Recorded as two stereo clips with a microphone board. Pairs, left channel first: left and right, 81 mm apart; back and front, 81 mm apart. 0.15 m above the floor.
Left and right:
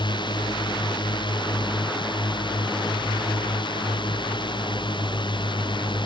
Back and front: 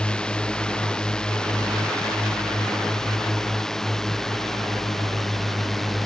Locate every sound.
0.0 s a drone: 100° left; by 6.0 s 90° left